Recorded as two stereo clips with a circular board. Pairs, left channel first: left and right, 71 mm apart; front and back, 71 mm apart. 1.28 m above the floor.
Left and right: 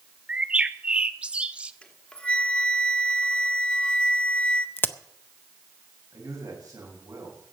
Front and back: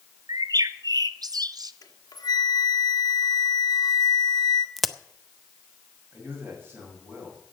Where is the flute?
20° left, 1.4 m.